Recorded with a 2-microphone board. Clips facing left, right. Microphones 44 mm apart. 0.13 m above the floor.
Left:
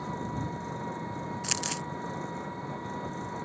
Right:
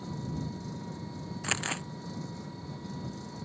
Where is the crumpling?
25° right (ahead or behind).